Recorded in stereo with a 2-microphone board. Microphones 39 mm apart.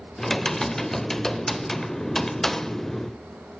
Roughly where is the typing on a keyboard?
Centre.